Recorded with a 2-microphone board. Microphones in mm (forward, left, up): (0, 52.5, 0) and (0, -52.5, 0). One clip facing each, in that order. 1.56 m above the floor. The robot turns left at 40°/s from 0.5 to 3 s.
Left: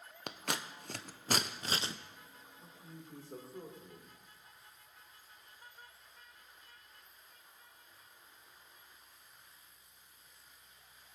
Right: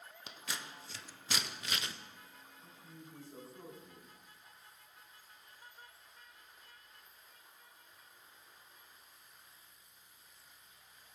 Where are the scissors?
65° left (ahead or behind), 0.6 m; by 1.9 s 25° left (ahead or behind), 0.6 m.